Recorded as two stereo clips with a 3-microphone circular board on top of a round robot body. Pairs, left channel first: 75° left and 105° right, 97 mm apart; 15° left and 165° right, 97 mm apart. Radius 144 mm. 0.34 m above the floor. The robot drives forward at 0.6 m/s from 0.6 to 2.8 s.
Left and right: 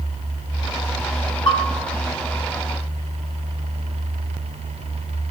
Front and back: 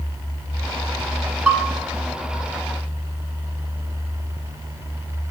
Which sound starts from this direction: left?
A bell, at 1.5 s.